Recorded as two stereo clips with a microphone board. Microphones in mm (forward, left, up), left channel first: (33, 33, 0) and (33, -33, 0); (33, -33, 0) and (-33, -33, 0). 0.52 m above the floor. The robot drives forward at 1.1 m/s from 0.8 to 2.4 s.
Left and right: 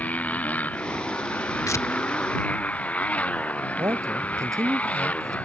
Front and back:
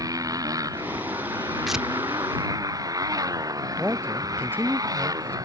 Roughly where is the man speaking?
Behind right.